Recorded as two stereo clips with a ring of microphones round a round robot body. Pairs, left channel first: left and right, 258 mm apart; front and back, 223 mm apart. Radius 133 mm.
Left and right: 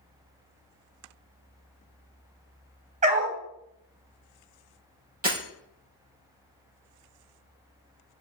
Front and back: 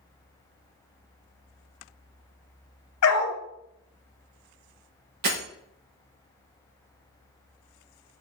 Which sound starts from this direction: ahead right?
A dog barking, at 3.0 s.